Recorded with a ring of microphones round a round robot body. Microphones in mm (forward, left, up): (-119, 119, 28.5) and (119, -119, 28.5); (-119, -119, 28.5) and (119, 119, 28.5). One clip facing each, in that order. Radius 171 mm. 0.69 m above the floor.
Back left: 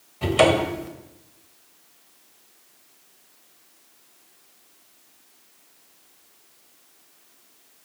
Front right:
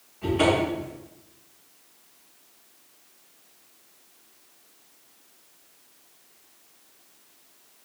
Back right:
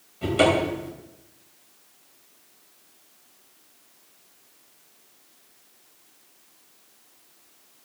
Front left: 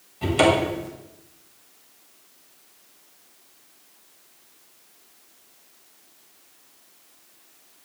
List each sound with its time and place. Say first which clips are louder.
0.2 s a cupboard door: back left 2 dB, front left 1 dB; 125° left, 2.5 m